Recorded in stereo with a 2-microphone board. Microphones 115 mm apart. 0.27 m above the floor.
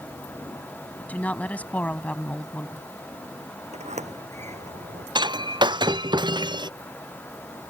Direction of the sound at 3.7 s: 85° right.